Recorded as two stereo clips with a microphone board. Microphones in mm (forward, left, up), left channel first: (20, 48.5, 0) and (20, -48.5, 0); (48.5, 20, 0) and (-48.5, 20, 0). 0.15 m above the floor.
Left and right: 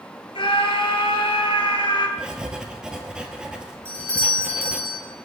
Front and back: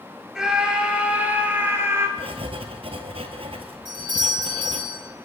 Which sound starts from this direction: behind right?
A doorbell, at 3.9 s.